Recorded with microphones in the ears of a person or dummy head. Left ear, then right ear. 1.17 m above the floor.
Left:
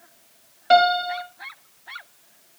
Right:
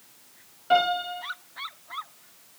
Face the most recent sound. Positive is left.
turn(degrees=50)  # may be behind; listen again after turning